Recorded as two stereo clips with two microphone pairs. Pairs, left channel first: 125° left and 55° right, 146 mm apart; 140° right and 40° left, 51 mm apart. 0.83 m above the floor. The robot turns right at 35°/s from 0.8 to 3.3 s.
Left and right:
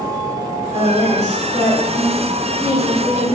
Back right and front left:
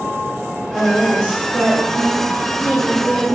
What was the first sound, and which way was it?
A woman speaking, 10° right.